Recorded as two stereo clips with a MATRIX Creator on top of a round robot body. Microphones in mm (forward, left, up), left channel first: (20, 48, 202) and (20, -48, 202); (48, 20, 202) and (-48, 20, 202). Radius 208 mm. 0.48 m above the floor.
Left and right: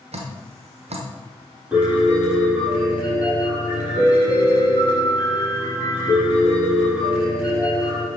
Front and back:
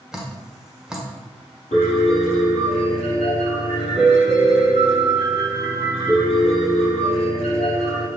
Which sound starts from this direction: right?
Dripping, at 0.1 s.